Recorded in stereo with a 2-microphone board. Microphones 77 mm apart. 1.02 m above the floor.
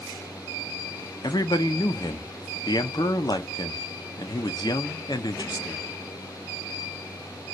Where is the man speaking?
60° left (ahead or behind), 0.5 m.